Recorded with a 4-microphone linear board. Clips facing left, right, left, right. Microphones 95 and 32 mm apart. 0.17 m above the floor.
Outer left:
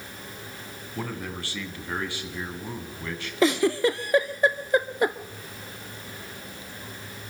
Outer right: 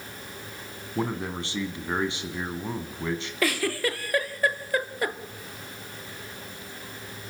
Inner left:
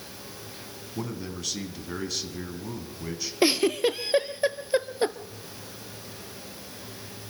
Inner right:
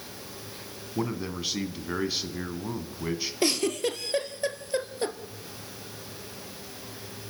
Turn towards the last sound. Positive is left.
turn(degrees=20)  # may be behind; listen again after turning